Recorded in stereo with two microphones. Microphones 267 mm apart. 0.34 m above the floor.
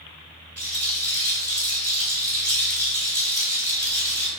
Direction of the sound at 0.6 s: 60° right (ahead or behind).